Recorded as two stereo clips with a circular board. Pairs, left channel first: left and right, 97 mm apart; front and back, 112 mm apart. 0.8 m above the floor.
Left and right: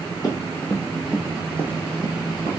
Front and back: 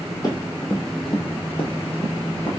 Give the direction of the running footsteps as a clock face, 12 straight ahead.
11 o'clock.